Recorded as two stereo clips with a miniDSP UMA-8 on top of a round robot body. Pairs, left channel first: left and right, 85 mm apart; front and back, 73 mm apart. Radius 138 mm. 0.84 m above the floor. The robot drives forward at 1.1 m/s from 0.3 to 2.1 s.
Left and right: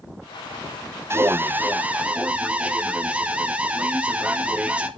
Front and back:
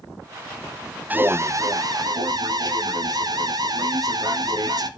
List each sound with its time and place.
1.1 s an alarm: 125° right, 0.9 m; by 4.9 s 165° right, 1.6 m